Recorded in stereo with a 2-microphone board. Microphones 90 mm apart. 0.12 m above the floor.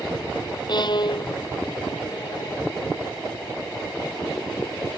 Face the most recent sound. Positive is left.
turn(degrees=55)  # may be behind; listen again after turning